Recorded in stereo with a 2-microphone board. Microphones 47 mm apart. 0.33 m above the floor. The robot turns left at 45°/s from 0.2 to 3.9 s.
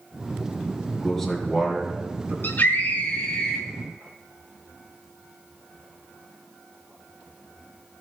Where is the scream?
65° left, 2.5 m; by 3.6 s 10° left, 2.5 m.